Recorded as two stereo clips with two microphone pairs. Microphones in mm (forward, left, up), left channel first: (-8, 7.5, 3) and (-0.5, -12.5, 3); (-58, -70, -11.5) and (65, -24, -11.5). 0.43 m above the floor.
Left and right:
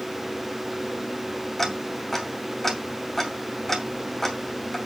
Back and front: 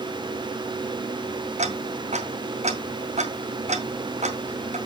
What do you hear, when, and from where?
1.6 s ticking: 40° left, 2.5 m